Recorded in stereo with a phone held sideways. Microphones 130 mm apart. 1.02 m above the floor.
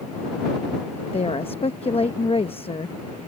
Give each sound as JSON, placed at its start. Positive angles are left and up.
{"t": 1.1, "sound": "a woman speaking", "side_deg": 45}